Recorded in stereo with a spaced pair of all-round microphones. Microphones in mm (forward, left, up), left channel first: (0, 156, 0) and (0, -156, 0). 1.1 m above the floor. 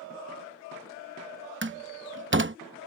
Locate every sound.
1.6 s a door slam: 35° right (ahead or behind)